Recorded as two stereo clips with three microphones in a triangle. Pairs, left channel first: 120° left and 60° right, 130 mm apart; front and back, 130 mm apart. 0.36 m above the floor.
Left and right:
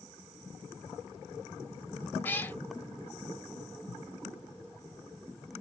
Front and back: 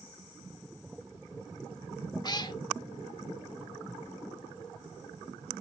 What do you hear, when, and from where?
2.2 s a cat meowing: 45° left, 0.8 m